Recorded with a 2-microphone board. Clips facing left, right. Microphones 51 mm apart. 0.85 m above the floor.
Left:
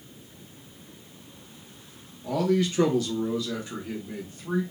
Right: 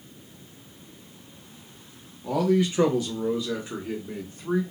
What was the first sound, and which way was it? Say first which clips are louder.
A man speaking: right 2 dB; 10° right (ahead or behind).